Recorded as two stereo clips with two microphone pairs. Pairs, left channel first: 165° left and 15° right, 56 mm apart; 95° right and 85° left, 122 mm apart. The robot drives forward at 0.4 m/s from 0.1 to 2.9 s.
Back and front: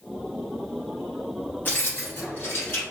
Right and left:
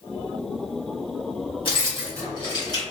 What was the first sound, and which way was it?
Keys jangling, 140° right.